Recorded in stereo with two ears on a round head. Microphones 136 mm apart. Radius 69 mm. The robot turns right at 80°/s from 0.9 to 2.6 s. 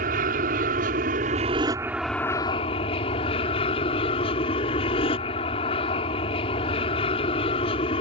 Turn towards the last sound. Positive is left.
turn(degrees=40)